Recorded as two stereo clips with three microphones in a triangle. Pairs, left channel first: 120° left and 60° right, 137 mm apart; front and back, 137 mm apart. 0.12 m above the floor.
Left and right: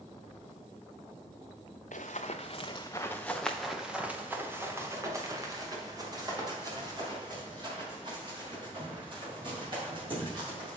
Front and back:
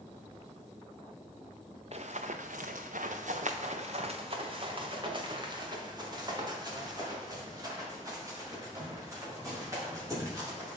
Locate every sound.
1.9 s running footsteps: 140° left, 0.9 m; by 10.8 s 110° right, 5.5 m